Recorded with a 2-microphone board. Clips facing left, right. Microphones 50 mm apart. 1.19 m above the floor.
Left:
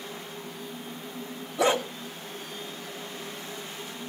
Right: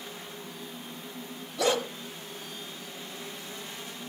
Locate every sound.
1.6 s a dog barking: 20° left (ahead or behind), 1.8 m